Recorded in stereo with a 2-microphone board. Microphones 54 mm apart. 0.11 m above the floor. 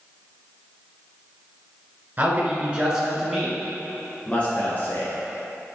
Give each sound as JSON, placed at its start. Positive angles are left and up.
{"t": 2.2, "sound": "a man speaking", "side_deg": -30, "distance_m": 1.8}